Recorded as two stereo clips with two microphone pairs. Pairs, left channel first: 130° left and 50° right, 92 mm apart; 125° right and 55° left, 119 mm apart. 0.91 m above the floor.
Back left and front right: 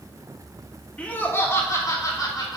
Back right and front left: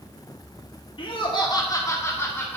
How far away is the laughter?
About 1.9 m.